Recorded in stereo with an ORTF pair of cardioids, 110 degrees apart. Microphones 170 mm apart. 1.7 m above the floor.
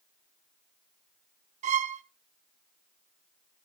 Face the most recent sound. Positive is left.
turn(degrees=-45)